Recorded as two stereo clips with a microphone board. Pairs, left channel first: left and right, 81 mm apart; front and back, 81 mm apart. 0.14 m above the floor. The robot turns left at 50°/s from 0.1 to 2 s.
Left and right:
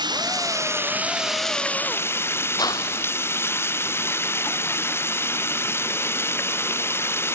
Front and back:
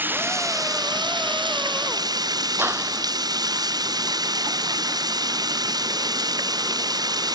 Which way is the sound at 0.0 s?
115° right.